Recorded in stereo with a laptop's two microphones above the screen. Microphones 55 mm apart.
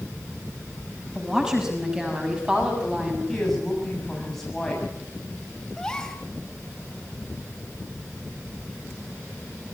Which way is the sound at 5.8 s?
10° left (ahead or behind).